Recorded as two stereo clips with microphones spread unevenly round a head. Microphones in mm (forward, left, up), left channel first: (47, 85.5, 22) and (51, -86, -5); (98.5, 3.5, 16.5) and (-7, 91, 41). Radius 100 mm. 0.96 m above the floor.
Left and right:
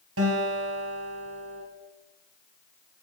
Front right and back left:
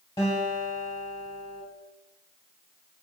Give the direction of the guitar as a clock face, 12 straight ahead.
4 o'clock.